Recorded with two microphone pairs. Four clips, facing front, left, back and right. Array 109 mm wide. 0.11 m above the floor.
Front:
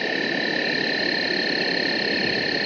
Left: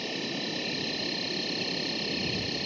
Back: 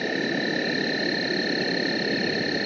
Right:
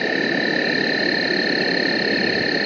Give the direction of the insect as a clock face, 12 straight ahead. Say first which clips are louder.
Right 14 dB, front 1 dB; 3 o'clock.